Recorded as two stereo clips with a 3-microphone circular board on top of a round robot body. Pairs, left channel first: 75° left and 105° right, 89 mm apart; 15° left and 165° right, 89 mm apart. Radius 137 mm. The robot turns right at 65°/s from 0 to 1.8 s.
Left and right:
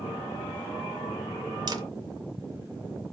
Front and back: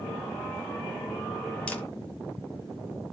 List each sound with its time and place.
1.7 s a camera shutter: 65° right, 0.8 m; by 1.8 s 55° right, 0.8 m